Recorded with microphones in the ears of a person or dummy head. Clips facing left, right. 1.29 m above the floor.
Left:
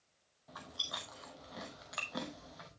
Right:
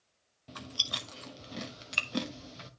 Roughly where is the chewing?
Right.